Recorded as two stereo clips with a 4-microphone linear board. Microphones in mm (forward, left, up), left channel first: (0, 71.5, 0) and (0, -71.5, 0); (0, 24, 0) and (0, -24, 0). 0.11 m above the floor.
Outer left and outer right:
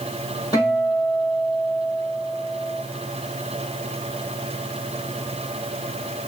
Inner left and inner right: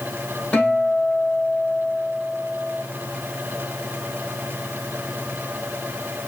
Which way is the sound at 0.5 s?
25° left (ahead or behind).